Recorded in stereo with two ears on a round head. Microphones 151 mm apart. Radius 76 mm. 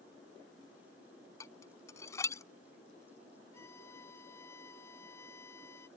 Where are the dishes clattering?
20° left (ahead or behind).